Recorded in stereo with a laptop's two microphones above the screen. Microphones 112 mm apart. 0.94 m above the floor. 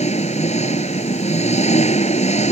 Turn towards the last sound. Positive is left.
turn(degrees=80)